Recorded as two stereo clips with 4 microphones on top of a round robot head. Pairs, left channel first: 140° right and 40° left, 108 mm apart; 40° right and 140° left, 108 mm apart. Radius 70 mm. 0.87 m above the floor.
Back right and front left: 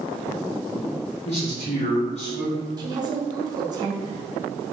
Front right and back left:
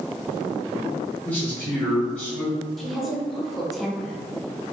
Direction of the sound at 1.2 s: 130° right.